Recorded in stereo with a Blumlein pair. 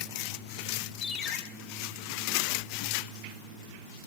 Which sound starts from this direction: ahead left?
A ringtone, at 1.0 s.